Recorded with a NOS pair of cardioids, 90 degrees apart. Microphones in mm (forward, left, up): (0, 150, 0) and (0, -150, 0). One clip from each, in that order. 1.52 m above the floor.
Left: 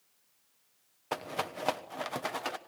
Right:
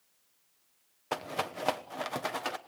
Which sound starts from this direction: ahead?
A rattle, at 1.1 s.